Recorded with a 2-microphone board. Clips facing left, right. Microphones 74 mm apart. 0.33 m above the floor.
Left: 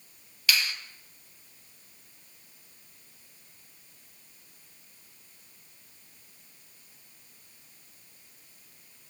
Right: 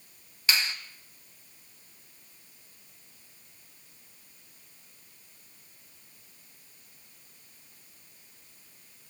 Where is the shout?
I don't hear a shout.